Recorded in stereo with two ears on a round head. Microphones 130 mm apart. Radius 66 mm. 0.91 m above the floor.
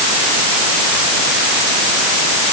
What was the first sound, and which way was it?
Only background noise.